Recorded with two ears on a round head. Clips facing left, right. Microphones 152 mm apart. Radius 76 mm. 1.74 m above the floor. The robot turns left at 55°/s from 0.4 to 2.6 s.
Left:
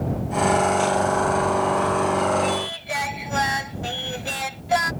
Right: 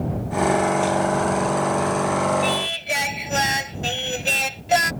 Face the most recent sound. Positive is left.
turn(degrees=-30)  # may be behind; listen again after turning